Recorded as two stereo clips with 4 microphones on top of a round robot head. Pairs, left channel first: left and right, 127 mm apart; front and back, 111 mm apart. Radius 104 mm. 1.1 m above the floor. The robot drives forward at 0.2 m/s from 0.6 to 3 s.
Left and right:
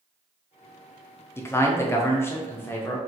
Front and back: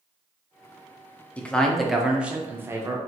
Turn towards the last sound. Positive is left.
turn(degrees=145)